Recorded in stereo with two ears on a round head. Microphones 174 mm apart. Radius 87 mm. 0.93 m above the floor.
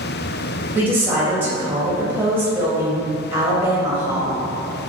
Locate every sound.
0.8 s a woman speaking: 10° right (ahead or behind), 1.3 m